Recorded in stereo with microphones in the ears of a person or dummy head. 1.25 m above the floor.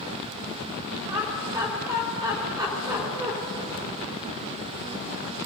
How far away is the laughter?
About 3 m.